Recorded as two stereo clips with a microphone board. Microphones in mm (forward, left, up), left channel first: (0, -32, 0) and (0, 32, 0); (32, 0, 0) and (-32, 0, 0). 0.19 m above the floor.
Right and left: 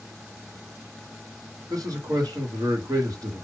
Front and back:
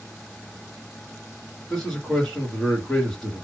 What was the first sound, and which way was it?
A man speaking, 75° left.